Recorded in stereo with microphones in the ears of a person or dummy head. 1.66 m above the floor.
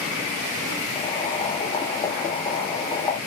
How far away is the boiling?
About 3 m.